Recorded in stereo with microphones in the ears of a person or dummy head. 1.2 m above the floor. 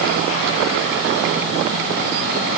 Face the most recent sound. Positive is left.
No sound to turn to.